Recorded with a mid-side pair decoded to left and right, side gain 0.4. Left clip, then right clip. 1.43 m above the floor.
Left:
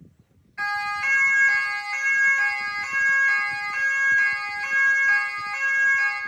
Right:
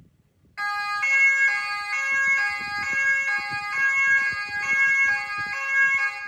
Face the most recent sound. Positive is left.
turn(degrees=-80)